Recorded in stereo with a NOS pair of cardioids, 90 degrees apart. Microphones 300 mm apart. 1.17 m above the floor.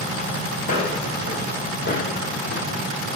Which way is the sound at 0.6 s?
25° left.